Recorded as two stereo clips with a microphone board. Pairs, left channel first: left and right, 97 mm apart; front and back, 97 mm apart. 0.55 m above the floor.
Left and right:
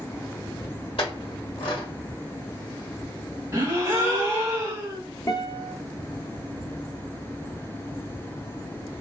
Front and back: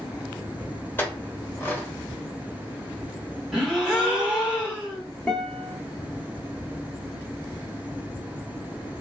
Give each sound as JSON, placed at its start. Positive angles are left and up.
{"t": 1.0, "sound": "a clink", "azimuth_deg": 70, "distance_m": 1.2}
{"t": 3.5, "sound": "a gasp", "azimuth_deg": -100, "distance_m": 1.3}
{"t": 5.3, "sound": "a guitar", "azimuth_deg": 75, "distance_m": 0.9}